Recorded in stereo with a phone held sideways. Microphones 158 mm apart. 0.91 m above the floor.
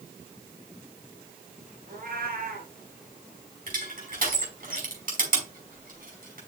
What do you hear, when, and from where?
1.9 s a cat meowing: 65° right (ahead or behind), 3.5 m
3.7 s crushing: 65° right (ahead or behind), 5.5 m